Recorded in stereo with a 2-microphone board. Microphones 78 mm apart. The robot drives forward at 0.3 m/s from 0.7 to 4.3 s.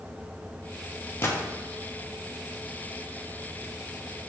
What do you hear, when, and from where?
1.2 s a gunshot: 30° left (ahead or behind), 1.0 m